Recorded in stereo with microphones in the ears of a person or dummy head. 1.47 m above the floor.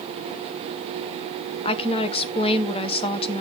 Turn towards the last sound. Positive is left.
turn(degrees=35)  # may be behind; listen again after turning